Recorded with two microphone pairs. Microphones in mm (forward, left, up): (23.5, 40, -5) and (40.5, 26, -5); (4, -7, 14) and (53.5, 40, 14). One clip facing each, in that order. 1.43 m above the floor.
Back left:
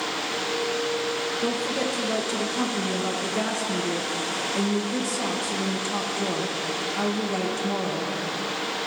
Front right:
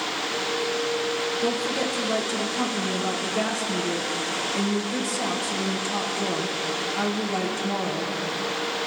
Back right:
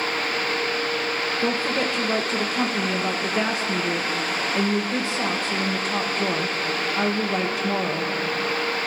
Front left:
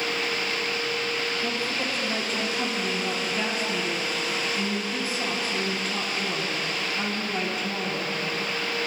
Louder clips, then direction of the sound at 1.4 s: Even, back right 5 dB; 135° right.